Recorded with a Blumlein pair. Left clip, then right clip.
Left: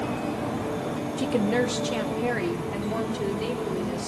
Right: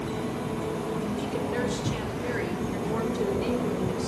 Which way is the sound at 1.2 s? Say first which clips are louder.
Left 8 dB; 45° left.